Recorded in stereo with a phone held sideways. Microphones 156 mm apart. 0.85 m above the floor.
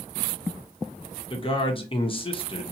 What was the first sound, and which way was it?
A man speaking, 35° left (ahead or behind).